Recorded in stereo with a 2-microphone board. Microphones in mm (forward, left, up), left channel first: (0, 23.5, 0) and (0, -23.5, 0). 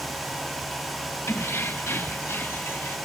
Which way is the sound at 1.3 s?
65° left (ahead or behind).